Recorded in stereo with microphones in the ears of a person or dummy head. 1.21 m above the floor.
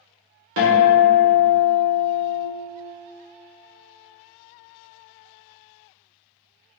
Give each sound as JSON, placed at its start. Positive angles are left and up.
{"t": 0.6, "sound": "a guitar", "side_deg": -70, "distance_m": 0.8}